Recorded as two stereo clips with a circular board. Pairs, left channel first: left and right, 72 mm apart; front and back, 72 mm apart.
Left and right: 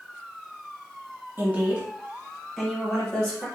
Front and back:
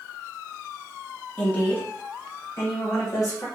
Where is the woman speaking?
60° right, 0.9 m; by 3.5 s 20° left, 1.5 m.